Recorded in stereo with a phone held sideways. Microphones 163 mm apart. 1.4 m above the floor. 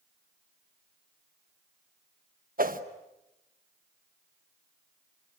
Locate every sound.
2.6 s a whoosh: 60° right (ahead or behind), 1.3 m